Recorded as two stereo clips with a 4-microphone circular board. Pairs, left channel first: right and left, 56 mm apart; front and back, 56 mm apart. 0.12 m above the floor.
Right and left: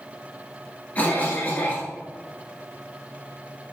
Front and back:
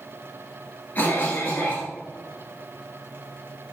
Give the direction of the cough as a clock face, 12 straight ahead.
2 o'clock.